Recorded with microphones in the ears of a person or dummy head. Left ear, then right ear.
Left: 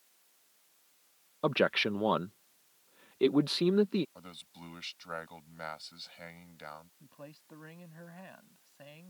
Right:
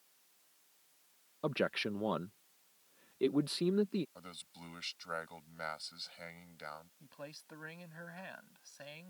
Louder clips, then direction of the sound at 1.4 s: Left 7 dB; 5° left (ahead or behind).